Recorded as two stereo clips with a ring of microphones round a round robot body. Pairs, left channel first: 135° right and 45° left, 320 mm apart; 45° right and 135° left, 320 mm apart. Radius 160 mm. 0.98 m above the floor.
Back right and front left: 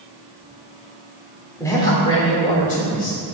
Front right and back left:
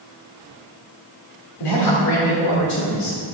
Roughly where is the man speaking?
Ahead right.